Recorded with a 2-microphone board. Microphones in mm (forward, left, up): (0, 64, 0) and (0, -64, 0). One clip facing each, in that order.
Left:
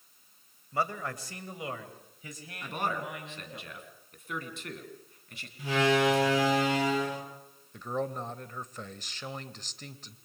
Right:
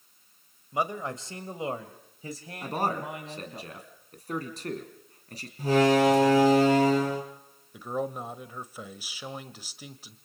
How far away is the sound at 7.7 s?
About 1.1 m.